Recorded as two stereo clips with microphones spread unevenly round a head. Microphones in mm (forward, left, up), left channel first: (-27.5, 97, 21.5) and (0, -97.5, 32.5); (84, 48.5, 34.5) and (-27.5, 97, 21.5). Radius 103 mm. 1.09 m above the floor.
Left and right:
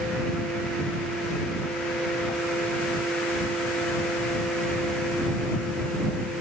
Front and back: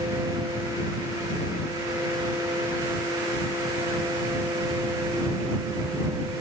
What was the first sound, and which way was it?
Only background noise.